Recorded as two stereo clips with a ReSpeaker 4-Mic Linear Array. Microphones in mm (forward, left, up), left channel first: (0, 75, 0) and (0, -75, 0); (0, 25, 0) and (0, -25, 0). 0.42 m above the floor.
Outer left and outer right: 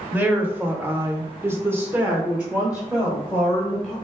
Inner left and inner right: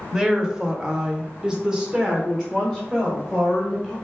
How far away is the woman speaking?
About 1.2 m.